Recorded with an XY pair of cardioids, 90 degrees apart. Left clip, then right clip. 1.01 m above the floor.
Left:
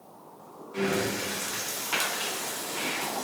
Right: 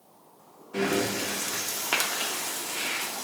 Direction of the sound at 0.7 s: 70° right.